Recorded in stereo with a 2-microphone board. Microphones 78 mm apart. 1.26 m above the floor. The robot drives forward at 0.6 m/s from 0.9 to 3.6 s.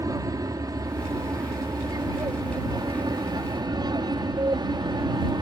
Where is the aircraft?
50° right (ahead or behind); by 5.4 s 65° right (ahead or behind).